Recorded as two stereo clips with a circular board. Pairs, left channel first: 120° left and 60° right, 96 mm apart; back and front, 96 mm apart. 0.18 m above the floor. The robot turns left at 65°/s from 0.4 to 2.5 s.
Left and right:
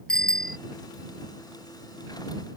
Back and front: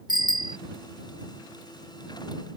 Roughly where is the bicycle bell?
Ahead left.